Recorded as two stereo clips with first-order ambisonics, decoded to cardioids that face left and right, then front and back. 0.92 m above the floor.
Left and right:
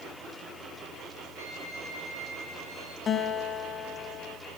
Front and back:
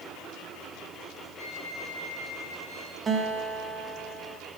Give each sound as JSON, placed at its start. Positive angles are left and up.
{"t": 1.4, "sound": "a violin", "azimuth_deg": -85, "distance_m": 4.0}
{"t": 3.1, "sound": "a guitar", "azimuth_deg": 135, "distance_m": 0.8}